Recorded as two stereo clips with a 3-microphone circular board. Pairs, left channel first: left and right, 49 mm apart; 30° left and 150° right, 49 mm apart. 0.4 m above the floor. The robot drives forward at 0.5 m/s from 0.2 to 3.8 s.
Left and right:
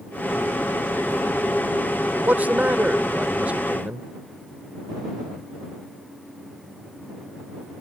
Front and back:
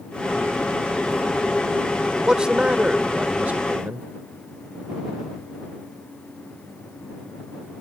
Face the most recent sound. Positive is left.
turn(degrees=-130)